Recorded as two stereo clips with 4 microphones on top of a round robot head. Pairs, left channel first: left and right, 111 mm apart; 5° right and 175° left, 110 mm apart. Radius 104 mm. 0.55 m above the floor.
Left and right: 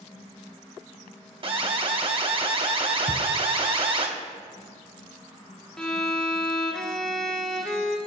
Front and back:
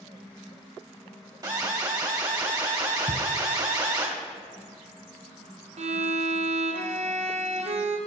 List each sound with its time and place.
1.4 s an alarm: 130° right, 1.7 m
3.1 s a thud: 135° right, 1.7 m
5.8 s a violin: 175° left, 1.5 m